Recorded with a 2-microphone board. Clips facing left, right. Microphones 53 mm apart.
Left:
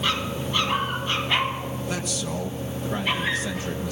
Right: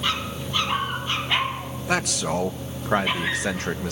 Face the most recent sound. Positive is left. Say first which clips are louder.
# right 9 dB
turn(degrees=-75)  # may be behind; listen again after turning